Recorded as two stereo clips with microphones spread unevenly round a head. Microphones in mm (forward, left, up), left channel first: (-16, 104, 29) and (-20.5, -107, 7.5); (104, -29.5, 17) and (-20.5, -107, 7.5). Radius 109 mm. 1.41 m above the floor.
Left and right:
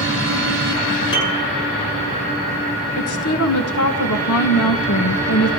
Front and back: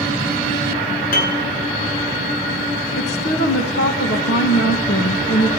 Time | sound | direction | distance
1.1 | a piano | 20° left | 9.5 m
3.0 | a woman speaking | 65° left | 1.8 m